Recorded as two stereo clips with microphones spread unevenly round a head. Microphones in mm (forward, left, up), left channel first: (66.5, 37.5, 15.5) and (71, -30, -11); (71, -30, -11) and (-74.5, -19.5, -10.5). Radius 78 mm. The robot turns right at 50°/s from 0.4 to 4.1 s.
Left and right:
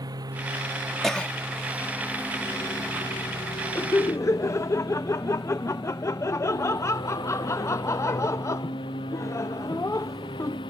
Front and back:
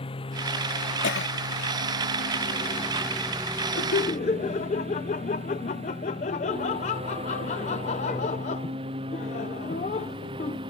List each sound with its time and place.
0.0 s a lawn mower: 60° right; by 10.7 s 115° left
1.0 s a cough: 10° left; by 1.3 s 25° left
3.8 s laughter: 30° left; by 10.6 s 45° left